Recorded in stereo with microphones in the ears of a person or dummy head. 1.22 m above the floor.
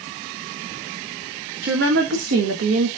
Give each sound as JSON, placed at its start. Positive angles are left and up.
{"t": 1.6, "sound": "a woman speaking", "side_deg": -60, "distance_m": 1.6}